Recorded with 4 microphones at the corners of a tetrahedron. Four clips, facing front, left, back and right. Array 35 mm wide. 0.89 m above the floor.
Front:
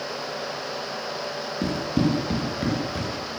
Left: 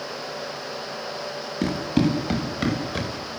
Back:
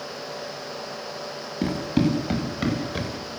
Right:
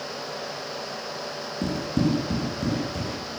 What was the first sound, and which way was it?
Running footsteps, 115° left.